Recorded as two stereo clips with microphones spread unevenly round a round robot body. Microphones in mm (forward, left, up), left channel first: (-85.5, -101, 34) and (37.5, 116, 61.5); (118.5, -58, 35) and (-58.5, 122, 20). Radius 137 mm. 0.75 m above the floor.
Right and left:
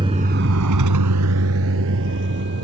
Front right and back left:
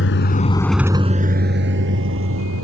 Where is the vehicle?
10° right; by 2.6 s 105° left.